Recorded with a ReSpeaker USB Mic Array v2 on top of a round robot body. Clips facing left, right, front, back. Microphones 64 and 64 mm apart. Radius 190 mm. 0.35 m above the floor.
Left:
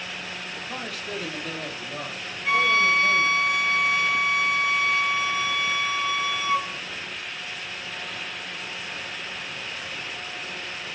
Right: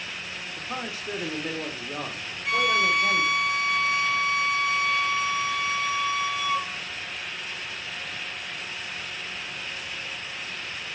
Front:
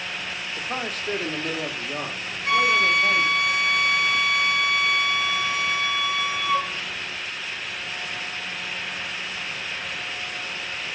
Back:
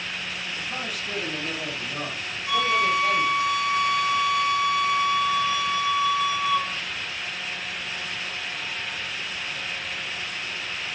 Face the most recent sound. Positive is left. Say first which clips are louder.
# left 2 dB, front 2 dB
turn(degrees=25)